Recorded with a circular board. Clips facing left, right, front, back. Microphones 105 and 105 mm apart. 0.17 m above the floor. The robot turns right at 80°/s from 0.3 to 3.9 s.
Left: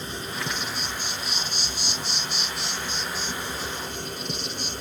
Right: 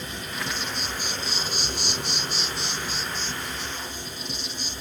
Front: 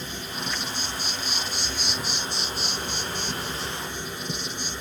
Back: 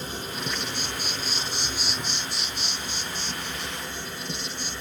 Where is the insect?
140° left, 1.0 m; by 4.8 s 70° left, 1.0 m.